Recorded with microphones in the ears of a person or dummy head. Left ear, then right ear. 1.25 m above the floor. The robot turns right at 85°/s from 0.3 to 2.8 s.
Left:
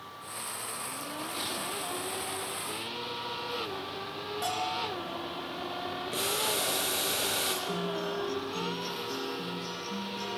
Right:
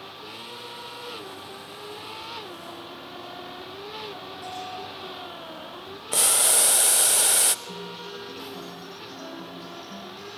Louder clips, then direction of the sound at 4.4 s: Left 5 dB; 35° left (ahead or behind).